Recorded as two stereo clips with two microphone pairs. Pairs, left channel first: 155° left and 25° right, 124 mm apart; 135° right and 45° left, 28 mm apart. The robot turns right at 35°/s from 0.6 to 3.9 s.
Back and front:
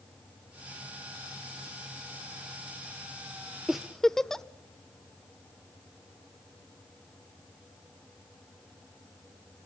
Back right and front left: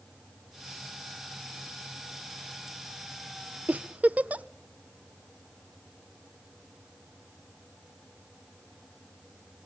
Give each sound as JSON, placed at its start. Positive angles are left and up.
{"t": 3.7, "sound": "a giggle", "azimuth_deg": 60, "distance_m": 0.6}